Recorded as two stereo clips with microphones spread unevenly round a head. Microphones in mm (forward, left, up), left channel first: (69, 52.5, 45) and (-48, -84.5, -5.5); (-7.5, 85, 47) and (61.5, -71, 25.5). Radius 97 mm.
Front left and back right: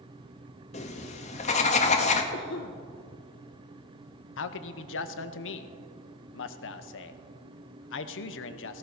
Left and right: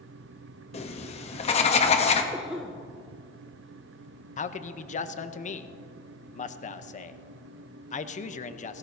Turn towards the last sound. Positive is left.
turn(degrees=70)